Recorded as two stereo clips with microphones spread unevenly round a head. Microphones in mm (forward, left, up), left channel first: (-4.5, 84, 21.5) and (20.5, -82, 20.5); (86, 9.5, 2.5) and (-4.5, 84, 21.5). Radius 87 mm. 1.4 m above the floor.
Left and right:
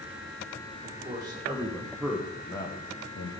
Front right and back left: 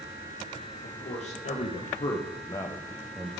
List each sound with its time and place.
0.8 s a man speaking: 15° right, 1.8 m; by 3.3 s 70° left, 0.8 m